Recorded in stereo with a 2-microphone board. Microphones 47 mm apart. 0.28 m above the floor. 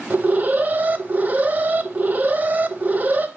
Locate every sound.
0.1 s an alarm: 35° right (ahead or behind), 0.7 m